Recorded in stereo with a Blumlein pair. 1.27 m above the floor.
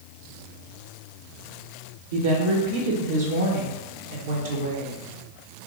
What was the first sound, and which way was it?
A woman speaking, 60° right.